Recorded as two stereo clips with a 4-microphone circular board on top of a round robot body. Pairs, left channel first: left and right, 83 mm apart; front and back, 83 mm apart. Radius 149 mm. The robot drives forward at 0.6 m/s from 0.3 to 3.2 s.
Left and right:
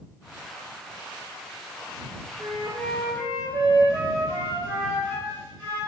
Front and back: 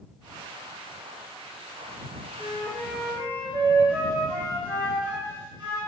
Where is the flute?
125° right, 1.7 m; by 5.8 s 135° right, 2.0 m.